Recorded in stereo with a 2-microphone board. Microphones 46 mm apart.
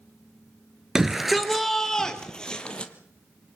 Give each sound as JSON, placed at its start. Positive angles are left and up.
{"t": 0.9, "sound": "a shout", "side_deg": -10, "distance_m": 1.4}